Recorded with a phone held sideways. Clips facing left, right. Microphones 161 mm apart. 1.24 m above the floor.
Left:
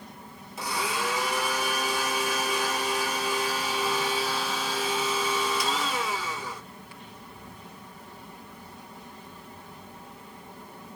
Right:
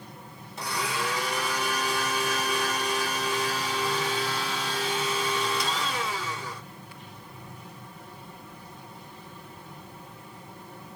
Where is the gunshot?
I don't hear a gunshot.